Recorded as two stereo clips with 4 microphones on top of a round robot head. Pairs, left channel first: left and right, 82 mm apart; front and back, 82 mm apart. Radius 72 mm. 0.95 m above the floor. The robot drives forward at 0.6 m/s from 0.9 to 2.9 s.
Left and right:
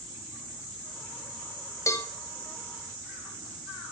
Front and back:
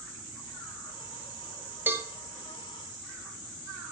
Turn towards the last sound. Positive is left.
turn(degrees=150)